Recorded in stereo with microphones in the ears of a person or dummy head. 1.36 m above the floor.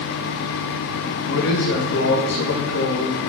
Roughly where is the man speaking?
Left.